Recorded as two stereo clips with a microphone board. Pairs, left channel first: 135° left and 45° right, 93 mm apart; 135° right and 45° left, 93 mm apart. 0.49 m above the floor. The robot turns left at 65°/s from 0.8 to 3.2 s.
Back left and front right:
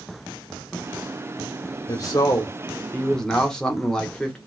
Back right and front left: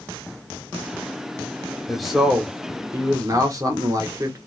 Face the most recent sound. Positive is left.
turn(degrees=60)